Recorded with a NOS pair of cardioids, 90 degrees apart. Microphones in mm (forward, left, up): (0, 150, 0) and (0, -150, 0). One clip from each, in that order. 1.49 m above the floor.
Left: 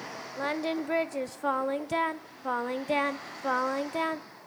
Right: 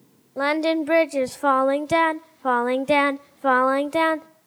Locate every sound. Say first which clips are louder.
0.4 s singing: right 10 dB; 40° right, 0.5 m